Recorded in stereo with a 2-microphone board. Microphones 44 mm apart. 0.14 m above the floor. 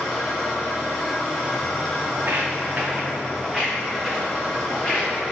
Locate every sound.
0.0 s an engine running: centre (ahead or behind), 1.2 m
2.1 s footsteps: 60° right (ahead or behind), 0.6 m; by 5.1 s 10° left (ahead or behind), 1.7 m